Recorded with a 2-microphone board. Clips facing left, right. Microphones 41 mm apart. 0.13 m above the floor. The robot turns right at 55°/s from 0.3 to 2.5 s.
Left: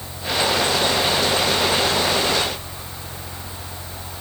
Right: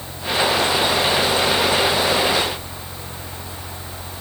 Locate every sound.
Only background noise.